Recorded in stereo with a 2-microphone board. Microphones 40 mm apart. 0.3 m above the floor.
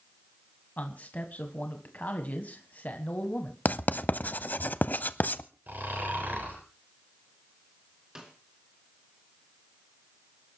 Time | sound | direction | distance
0.8 | a man speaking | 40° left (ahead or behind) | 1.7 m
3.6 | writing | 45° left (ahead or behind) | 0.7 m
5.7 | snoring | 50° right (ahead or behind) | 5.5 m
8.2 | a snare drum | 20° right (ahead or behind) | 3 m